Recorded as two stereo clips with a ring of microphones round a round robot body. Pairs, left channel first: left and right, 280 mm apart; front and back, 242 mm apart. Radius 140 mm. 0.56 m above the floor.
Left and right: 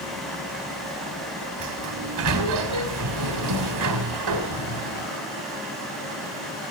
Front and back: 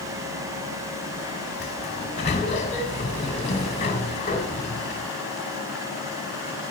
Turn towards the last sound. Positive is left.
turn(degrees=-70)